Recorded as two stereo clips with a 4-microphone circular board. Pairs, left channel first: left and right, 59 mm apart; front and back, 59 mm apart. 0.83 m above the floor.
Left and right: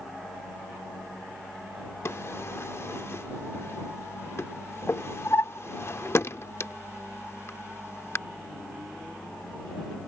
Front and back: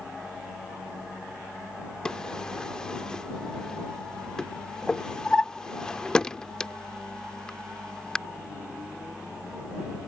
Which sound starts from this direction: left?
A drawer, at 2.0 s.